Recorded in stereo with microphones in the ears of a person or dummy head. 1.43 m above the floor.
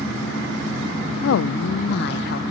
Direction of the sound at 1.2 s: 70° left (ahead or behind).